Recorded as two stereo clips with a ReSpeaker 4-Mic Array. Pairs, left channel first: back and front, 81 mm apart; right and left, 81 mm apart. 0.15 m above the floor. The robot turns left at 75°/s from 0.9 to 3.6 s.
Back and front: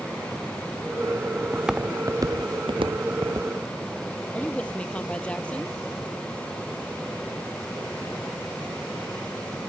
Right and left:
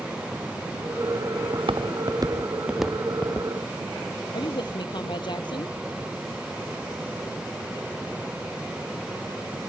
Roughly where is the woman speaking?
Right.